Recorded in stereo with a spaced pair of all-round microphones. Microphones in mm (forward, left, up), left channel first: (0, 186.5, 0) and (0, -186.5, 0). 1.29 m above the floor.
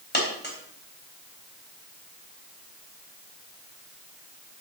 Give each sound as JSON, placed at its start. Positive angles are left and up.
{"t": 0.1, "sound": "a dropped coin", "side_deg": 30, "distance_m": 3.5}